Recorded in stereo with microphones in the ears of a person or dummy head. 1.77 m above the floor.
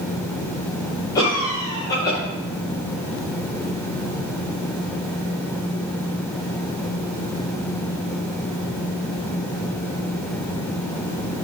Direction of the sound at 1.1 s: 15° left (ahead or behind).